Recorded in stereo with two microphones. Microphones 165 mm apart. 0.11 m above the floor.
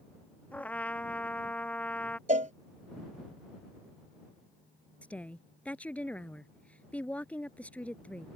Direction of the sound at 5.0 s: 10° left (ahead or behind).